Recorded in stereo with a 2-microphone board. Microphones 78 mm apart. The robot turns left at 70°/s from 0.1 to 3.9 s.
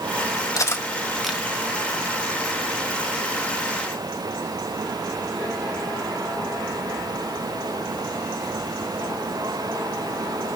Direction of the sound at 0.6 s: 45° left (ahead or behind).